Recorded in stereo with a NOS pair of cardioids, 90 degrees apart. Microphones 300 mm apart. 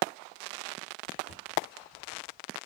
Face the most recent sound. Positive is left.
turn(degrees=-35)